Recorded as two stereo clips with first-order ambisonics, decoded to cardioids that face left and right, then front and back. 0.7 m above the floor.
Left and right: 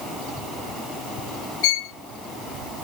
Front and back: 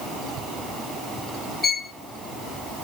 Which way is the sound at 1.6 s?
70° left.